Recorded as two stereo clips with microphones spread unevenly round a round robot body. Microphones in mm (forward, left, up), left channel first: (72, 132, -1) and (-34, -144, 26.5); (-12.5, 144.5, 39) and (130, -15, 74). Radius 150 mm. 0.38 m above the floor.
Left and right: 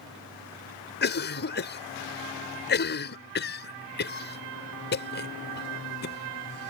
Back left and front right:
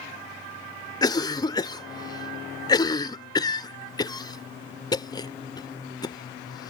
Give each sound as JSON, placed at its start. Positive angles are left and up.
{"t": 1.0, "sound": "a cough", "azimuth_deg": 85}